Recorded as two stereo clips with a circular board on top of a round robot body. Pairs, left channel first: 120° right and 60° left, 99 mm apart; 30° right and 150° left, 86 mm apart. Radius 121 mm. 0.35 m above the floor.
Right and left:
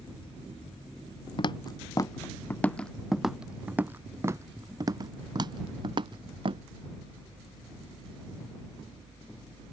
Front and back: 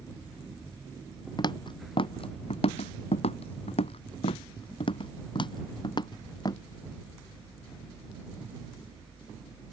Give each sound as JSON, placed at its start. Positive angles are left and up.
{"t": 1.4, "sound": "footsteps", "azimuth_deg": -70}